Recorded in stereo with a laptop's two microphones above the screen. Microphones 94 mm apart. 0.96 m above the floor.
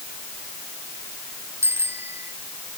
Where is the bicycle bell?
25° right (ahead or behind).